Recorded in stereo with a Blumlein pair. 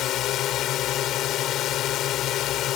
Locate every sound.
0.0 s a drone: 35° left